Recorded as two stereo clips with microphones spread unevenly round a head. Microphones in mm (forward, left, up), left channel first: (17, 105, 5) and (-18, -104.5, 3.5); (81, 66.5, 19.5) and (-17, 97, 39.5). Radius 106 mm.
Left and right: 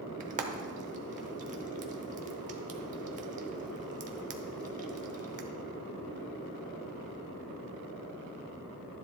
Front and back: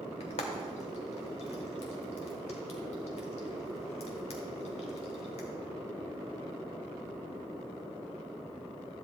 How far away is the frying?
About 0.9 m.